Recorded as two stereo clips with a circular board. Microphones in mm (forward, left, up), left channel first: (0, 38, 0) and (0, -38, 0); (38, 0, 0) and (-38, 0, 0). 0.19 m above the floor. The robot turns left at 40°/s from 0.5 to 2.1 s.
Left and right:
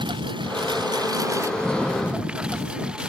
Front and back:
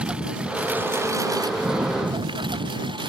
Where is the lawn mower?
105° right; by 3.1 s 170° right.